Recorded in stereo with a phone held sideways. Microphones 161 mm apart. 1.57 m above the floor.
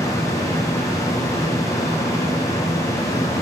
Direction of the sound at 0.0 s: 20° left (ahead or behind).